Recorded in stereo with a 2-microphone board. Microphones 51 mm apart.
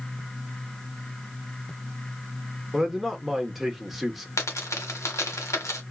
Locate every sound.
2.7 s a man speaking: 5° right (ahead or behind), 1.1 m
4.4 s a dropped coin: 90° left, 1.3 m